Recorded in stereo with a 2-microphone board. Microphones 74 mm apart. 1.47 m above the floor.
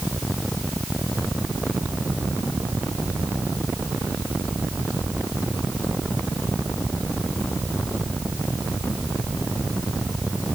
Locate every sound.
Only background noise.